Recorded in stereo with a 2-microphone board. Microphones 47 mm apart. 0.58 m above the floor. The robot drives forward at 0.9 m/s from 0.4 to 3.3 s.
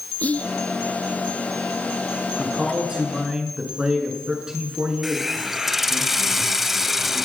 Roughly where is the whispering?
Left.